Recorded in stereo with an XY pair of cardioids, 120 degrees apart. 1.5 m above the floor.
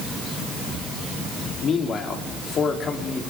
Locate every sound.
1.6 s a man speaking: 45° left, 3.5 m